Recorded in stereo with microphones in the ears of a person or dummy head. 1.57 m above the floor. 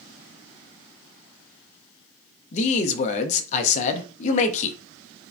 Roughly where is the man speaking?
Left.